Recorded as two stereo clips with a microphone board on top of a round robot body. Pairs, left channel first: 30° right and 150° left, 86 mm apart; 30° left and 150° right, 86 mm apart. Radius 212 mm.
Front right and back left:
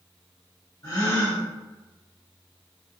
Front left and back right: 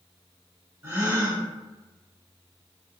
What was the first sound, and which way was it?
A gasp, 90° right.